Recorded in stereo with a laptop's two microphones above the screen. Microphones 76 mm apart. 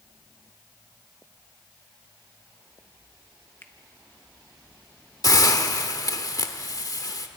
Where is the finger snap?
25° left (ahead or behind), 0.9 m.